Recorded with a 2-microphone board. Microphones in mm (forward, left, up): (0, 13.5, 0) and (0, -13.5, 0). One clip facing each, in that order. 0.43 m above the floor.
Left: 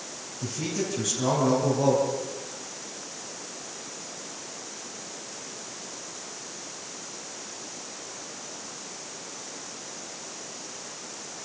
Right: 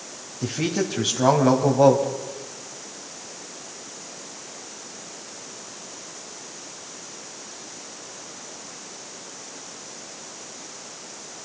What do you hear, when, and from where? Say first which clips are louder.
0.4 s a man speaking: right 6 dB; 45° right (ahead or behind), 2.5 m